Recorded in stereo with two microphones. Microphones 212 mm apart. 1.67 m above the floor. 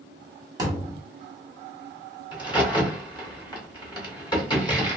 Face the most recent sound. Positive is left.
turn(degrees=20)  # may be behind; listen again after turning